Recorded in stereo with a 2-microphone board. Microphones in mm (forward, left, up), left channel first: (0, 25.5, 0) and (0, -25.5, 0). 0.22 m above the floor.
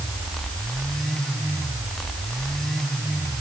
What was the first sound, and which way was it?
Only background noise.